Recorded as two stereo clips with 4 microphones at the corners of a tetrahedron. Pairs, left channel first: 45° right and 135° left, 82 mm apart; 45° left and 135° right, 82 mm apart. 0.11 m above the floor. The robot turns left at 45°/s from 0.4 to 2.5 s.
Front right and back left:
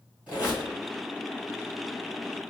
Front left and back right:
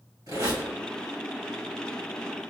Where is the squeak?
155° right, 1.9 m; by 0.7 s 165° right, 1.9 m.